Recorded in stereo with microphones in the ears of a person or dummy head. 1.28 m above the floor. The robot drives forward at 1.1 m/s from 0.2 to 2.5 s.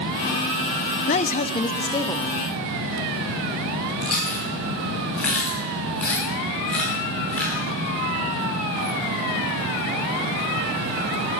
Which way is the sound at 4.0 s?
10° left (ahead or behind).